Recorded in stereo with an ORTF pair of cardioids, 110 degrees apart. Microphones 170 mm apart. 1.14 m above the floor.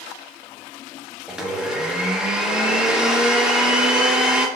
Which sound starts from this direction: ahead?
A blender, at 1.3 s.